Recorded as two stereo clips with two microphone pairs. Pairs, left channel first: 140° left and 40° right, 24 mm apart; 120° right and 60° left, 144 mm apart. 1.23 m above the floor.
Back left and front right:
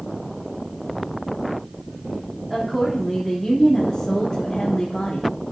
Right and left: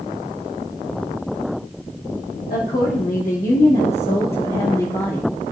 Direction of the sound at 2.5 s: 115° right.